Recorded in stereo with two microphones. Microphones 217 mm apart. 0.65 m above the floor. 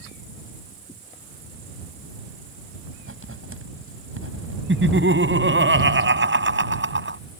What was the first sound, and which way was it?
Writing, 75° right (ahead or behind).